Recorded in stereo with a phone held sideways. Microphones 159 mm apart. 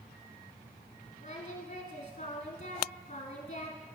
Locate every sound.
1.2 s singing: 55° left (ahead or behind), 1.6 m